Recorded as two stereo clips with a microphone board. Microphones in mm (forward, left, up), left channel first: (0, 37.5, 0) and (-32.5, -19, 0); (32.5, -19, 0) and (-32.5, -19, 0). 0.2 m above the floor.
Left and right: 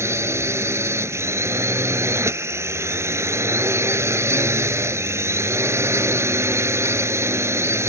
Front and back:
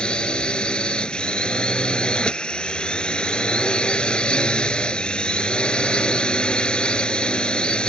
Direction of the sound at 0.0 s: 75° right.